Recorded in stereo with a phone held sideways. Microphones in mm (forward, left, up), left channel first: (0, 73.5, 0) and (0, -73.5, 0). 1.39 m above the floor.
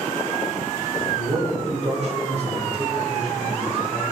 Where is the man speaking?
50° right (ahead or behind), 3 m.